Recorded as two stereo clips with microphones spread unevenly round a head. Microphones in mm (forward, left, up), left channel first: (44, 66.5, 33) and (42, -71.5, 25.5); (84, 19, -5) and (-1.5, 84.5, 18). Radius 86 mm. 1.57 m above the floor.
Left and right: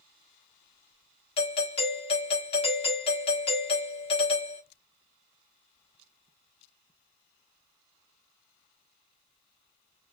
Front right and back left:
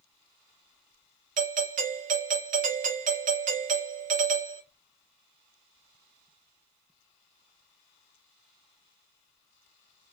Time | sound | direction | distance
1.4 | a doorbell | 145° left | 0.8 m